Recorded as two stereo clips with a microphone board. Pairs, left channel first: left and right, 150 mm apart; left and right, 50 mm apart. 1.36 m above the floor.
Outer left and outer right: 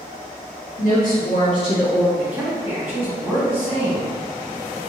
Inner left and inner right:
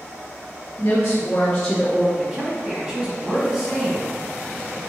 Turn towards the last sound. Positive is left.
turn(degrees=-15)  # may be behind; listen again after turning